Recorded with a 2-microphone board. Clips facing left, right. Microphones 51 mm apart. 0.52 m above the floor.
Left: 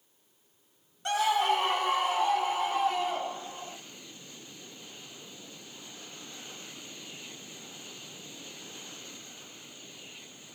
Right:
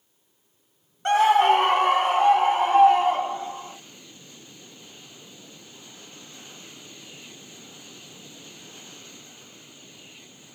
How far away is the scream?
About 0.8 m.